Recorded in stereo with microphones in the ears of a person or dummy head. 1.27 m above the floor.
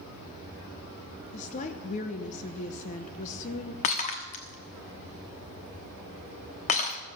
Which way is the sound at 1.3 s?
45° left (ahead or behind).